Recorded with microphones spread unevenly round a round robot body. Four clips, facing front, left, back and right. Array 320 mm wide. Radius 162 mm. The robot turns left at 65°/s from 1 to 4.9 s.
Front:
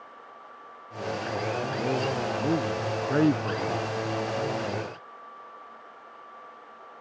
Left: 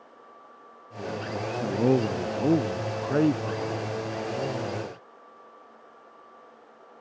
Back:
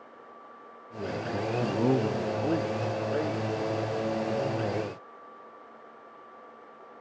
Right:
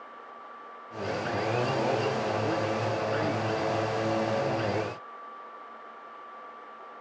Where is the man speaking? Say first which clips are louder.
Left 6 dB, back 5 dB; 145° left; by 3.9 s 5° right.